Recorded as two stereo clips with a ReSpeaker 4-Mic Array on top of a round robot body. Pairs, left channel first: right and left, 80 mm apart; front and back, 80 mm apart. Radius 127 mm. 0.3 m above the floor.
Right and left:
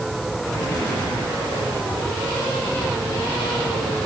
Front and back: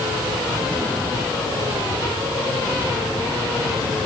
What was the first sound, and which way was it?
Only background noise.